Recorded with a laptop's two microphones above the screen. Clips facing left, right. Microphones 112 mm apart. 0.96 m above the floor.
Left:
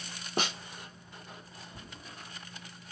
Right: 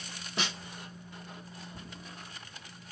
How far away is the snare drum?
About 1.1 m.